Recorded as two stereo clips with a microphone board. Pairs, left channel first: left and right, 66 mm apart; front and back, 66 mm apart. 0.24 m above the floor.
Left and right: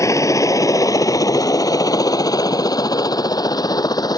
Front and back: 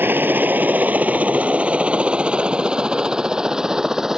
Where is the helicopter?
125° left; by 4.2 s 100° left.